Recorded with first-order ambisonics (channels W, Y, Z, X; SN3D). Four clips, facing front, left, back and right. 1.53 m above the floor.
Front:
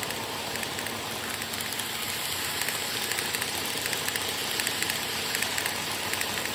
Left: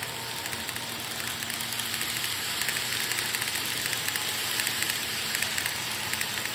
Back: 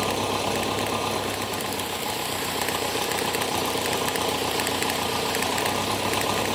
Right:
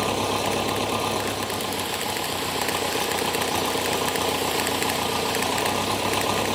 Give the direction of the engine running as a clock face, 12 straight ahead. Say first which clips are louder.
Right 11 dB, back 8 dB; 4 o'clock.